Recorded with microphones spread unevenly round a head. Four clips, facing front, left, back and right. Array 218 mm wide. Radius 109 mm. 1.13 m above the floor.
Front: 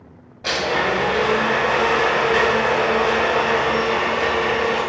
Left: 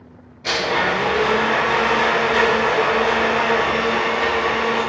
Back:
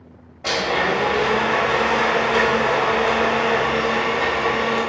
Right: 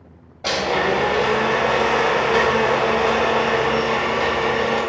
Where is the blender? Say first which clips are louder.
Right 1 dB, even; 90° right, 1.9 m.